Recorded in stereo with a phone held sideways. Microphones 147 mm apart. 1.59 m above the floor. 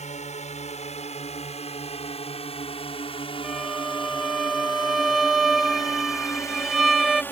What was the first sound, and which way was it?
A drone, 55° left (ahead or behind).